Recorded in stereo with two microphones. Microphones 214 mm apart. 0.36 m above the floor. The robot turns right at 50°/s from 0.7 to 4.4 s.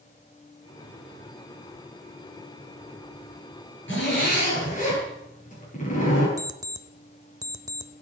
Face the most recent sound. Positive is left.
turn(degrees=-15)  # may be behind; listen again after turning